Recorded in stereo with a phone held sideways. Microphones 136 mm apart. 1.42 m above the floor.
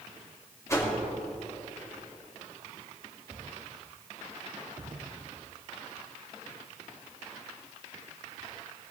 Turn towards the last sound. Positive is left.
turn(degrees=20)  # may be behind; listen again after turning